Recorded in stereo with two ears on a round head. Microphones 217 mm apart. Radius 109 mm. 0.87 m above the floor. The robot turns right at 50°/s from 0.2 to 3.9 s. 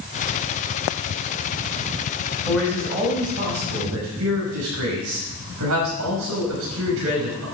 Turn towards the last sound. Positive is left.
turn(degrees=-110)